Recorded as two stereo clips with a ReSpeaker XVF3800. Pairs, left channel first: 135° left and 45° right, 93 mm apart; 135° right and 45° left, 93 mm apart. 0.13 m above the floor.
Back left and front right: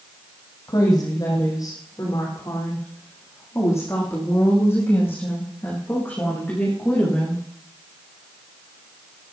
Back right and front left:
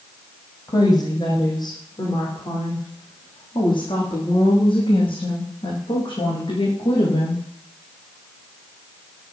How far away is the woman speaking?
About 5.5 m.